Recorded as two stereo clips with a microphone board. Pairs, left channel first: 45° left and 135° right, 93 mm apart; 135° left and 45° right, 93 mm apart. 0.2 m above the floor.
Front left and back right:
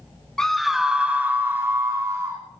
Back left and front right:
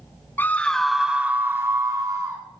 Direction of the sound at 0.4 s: 115° left.